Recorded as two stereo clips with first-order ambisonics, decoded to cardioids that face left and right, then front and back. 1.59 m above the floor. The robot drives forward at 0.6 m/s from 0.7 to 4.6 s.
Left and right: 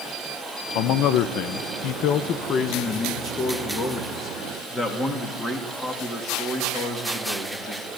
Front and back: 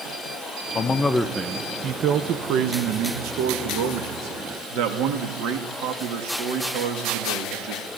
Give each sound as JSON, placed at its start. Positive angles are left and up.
{"t": 0.8, "sound": "a man speaking", "azimuth_deg": 65, "distance_m": 0.8}